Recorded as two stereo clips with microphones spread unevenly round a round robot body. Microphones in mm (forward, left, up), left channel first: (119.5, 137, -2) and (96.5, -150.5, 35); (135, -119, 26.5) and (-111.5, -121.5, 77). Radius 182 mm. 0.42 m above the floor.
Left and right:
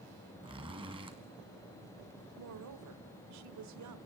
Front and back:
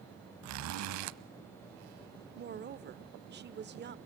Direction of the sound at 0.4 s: 170° right.